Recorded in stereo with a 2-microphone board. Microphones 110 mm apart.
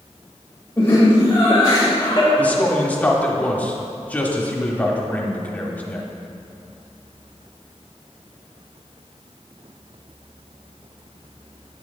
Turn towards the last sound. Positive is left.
turn(degrees=15)  # may be behind; listen again after turning